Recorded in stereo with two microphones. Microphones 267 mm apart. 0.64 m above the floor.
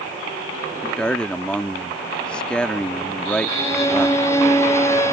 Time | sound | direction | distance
0.8 | a man speaking | 5° left (ahead or behind) | ?
3.5 | a violin | 10° left (ahead or behind) | ?